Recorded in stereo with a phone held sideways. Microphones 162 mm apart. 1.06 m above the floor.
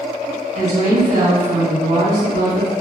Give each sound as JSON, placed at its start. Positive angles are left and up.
{"t": 0.6, "sound": "a woman speaking", "side_deg": -40, "distance_m": 2.0}